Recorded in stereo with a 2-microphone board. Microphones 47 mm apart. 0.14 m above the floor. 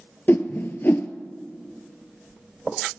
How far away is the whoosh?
About 0.5 m.